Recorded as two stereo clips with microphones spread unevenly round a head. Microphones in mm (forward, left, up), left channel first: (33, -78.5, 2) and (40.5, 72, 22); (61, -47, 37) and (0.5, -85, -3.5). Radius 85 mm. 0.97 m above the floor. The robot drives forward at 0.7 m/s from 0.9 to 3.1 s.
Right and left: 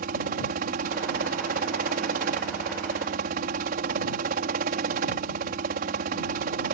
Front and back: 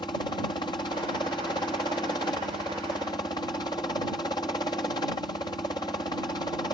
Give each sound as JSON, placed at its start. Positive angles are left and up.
{"t": 0.0, "sound": "a helicopter", "azimuth_deg": 90}